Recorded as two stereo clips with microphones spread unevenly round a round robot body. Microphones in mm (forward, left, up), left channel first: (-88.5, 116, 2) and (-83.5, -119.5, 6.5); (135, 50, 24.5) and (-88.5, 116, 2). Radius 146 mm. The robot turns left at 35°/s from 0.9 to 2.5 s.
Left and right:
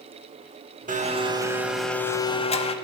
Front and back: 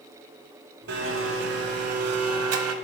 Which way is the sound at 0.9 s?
145° right.